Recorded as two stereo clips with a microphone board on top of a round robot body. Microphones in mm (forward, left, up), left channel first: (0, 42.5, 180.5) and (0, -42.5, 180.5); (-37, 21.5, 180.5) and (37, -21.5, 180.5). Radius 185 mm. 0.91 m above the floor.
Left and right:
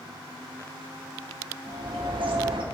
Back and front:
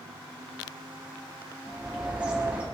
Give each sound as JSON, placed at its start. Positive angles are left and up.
{"t": 1.7, "sound": "a bird", "azimuth_deg": -105, "distance_m": 2.0}